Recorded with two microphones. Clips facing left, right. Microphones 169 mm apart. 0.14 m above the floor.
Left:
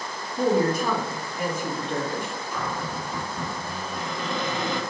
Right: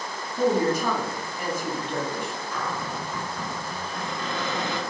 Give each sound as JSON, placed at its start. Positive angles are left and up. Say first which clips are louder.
{"t": 0.4, "sound": "a woman speaking", "louder": "even", "side_deg": 15, "distance_m": 1.2}
{"t": 2.5, "sound": "a cupboard door", "louder": "left 2 dB", "side_deg": 15, "distance_m": 1.4}